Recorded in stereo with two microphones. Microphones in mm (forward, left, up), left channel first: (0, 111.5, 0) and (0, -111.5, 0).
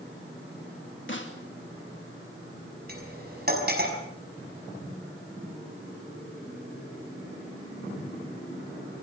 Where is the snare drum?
60° left (ahead or behind), 3 m.